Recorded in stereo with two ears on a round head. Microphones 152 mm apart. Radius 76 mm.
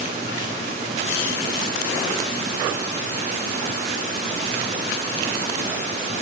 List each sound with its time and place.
Only background noise.